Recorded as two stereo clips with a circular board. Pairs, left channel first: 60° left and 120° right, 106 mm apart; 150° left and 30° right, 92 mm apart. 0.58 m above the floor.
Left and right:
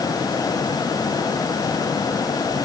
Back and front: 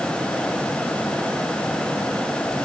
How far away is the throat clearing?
I don't hear throat clearing.